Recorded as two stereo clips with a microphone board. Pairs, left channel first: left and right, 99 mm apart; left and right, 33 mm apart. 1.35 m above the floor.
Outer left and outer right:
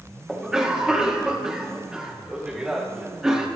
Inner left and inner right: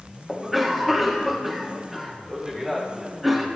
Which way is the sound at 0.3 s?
5° right (ahead or behind).